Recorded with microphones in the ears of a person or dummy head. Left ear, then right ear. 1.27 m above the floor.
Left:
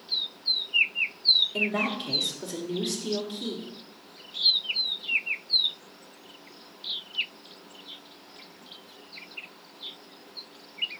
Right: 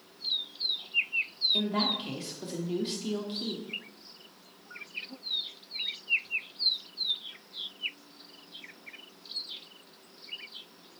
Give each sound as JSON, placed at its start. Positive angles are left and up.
{"t": 1.5, "sound": "a woman speaking", "side_deg": -20, "distance_m": 0.7}